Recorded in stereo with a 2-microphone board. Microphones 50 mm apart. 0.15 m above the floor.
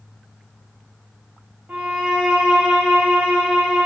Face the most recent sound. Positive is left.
turn(degrees=-20)  # may be behind; listen again after turning